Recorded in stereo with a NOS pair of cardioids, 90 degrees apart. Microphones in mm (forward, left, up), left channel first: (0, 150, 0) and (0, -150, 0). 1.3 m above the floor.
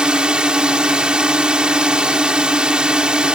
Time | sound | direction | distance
0.0 | a drone | 5° right | ?